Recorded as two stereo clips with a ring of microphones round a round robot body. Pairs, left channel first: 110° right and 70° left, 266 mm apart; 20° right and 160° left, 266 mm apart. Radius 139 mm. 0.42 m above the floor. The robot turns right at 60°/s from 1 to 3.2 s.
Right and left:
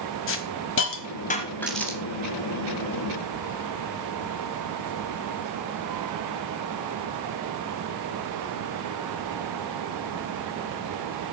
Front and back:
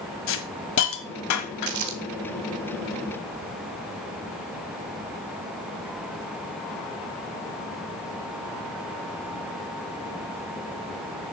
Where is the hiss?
65° right, 1.3 m; by 1.9 s 10° right, 1.3 m.